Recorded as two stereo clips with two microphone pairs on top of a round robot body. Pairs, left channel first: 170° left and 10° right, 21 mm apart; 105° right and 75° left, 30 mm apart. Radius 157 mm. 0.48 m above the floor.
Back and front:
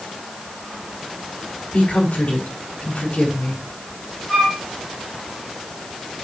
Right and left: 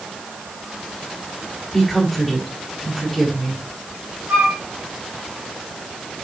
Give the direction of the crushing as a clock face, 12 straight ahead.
No crushing in this recording.